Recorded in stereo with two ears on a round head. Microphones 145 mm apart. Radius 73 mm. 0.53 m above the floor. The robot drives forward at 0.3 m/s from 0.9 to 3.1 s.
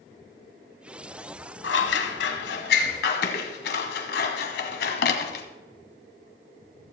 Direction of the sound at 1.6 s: 85° left.